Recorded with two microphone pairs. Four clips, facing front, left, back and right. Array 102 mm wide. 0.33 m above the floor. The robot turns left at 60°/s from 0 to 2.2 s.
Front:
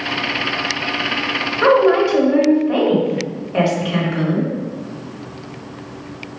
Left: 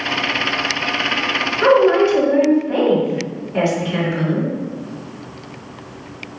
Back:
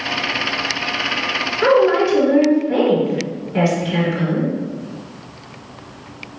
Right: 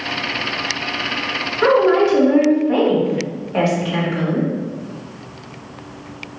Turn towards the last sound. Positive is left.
turn(degrees=-50)